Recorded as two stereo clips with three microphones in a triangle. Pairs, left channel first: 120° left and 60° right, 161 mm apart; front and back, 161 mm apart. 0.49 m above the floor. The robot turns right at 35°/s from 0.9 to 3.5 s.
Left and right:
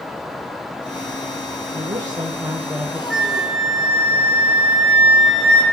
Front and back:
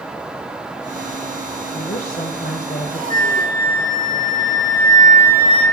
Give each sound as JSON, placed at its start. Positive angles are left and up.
{"t": 1.7, "sound": "a woman speaking", "azimuth_deg": -15, "distance_m": 1.7}
{"t": 3.1, "sound": "a flute", "azimuth_deg": -150, "distance_m": 4.0}